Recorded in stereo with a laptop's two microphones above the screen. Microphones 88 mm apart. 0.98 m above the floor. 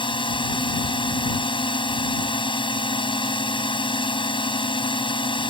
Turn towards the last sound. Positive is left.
turn(degrees=70)  # may be behind; listen again after turning